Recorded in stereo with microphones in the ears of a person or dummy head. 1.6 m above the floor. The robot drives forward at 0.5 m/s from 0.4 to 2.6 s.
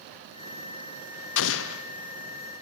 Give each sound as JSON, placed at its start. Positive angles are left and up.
{"t": 1.4, "sound": "an explosion", "side_deg": 75, "distance_m": 0.5}